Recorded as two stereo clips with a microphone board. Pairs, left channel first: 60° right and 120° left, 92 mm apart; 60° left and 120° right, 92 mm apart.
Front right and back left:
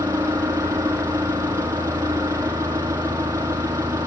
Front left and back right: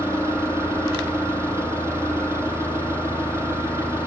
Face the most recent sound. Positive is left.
turn(degrees=180)